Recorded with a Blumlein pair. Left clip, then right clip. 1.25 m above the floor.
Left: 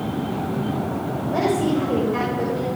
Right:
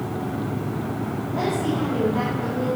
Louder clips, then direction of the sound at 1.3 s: Left 4 dB; 55° left.